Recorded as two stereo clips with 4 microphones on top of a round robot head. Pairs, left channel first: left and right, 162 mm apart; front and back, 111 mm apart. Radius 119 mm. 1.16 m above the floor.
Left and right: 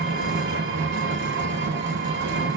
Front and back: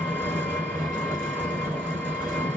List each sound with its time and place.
0.0 s an engine running: 85° right, 1.2 m